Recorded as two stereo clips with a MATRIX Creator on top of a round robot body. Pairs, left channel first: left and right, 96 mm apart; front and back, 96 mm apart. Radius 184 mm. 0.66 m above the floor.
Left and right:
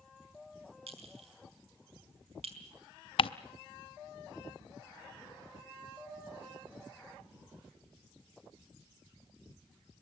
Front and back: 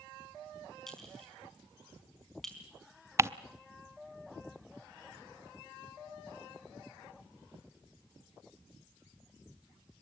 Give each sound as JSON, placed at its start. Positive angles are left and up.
{"t": 0.9, "sound": "a clink", "azimuth_deg": -85, "distance_m": 4.5}
{"t": 3.2, "sound": "ticking", "azimuth_deg": 120, "distance_m": 0.7}